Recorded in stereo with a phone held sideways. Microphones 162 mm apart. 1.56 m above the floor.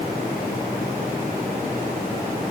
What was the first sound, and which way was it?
Only background noise.